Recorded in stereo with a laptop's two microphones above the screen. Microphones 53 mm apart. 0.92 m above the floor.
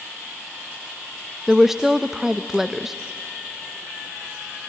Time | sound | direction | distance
1.5 | a woman speaking | 5° right (ahead or behind) | 0.7 m